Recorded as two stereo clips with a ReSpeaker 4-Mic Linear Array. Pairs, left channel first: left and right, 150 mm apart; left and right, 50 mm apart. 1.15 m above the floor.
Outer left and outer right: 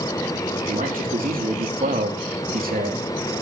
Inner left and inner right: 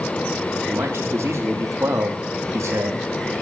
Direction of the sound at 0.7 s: 70° right (ahead or behind).